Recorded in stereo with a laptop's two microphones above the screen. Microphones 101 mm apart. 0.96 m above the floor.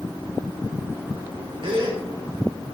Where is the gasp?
65° right (ahead or behind), 3.5 m.